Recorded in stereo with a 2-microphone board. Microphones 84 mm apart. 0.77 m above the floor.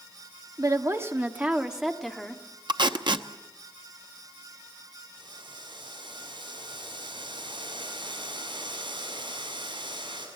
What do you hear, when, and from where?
0.6 s a woman speaking: 40° right (ahead or behind), 1.4 m; by 2.4 s 10° left (ahead or behind), 1.8 m
2.7 s tape being pulled: 60° right (ahead or behind), 0.9 m
5.2 s boiling: 75° right (ahead or behind), 6.5 m